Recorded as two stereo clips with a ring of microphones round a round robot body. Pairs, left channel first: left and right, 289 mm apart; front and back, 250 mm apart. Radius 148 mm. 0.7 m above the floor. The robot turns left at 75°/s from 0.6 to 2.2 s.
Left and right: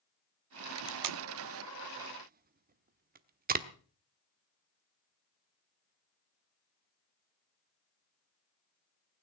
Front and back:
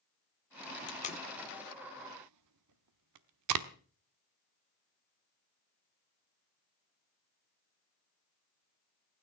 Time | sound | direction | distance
0.9 | tape being pulled | 55° right | 1.0 m